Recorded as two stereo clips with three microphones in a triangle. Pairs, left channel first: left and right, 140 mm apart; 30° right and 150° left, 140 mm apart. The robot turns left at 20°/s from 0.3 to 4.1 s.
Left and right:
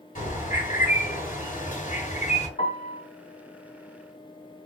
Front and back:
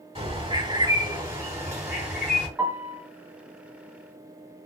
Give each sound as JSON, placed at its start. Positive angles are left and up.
{"t": 0.1, "sound": "a bird", "azimuth_deg": 100, "distance_m": 3.0}
{"t": 2.6, "sound": "a piano", "azimuth_deg": 75, "distance_m": 1.8}